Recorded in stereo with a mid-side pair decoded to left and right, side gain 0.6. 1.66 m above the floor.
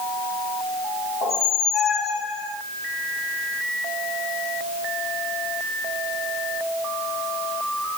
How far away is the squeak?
About 1.6 m.